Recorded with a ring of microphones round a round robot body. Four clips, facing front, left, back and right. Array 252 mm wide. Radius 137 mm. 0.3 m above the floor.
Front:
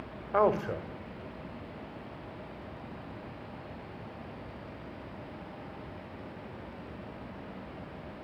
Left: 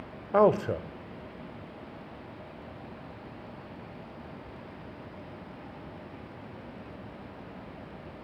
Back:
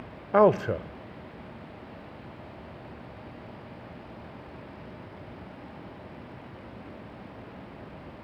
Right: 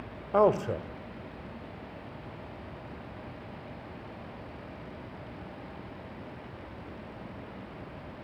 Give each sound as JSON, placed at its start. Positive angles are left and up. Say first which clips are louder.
{"t": 0.3, "sound": "a man speaking", "louder": "left 1 dB, back 6 dB", "azimuth_deg": 165, "distance_m": 1.7}